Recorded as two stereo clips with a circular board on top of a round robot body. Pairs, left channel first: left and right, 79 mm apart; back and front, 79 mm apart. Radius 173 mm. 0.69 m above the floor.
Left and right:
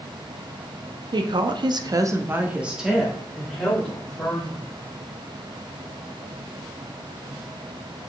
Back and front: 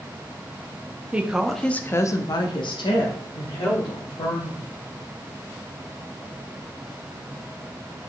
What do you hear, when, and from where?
1.1 s a woman speaking: 75° right, 1.3 m; by 4.7 s 165° left, 3 m